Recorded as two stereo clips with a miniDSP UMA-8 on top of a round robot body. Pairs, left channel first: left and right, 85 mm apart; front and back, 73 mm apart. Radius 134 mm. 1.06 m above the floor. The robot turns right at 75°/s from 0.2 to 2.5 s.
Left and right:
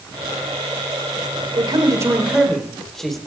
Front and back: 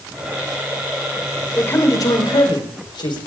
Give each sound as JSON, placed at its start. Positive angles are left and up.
{"t": 1.6, "sound": "a man speaking", "azimuth_deg": -70, "distance_m": 4.5}